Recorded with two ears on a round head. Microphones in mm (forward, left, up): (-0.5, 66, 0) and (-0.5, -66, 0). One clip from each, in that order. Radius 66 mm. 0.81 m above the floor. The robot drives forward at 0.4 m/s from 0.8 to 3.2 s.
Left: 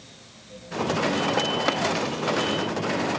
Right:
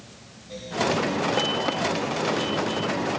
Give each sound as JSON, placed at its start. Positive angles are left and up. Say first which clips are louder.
{"t": 1.7, "sound": "tapping", "louder": "left 2 dB", "side_deg": 25, "distance_m": 0.5}